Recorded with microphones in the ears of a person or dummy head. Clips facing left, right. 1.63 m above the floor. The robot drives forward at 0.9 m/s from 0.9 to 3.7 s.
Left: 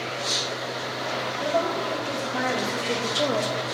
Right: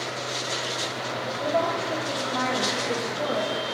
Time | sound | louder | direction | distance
1.4 | a woman speaking | even | 5° left (ahead or behind) | 1.9 m